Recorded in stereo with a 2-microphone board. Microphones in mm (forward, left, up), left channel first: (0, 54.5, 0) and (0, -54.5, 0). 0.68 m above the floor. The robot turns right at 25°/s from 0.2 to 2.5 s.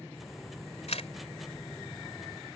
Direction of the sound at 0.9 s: 75° left (ahead or behind).